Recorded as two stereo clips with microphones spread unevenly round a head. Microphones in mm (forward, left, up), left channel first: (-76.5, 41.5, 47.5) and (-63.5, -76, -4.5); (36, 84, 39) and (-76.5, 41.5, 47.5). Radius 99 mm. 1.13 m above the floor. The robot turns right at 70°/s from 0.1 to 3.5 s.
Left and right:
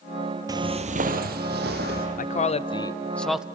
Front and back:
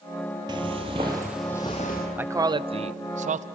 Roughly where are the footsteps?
Behind.